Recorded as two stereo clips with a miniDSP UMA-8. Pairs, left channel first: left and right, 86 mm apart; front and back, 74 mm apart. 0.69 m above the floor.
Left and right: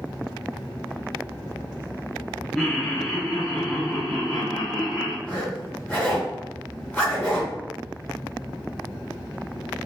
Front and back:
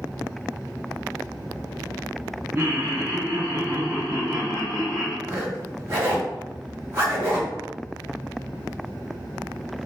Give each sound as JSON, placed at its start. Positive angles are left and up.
{"t": 2.5, "sound": "laughter", "azimuth_deg": 170, "distance_m": 0.5}
{"t": 5.2, "sound": "a zipper", "azimuth_deg": 150, "distance_m": 1.1}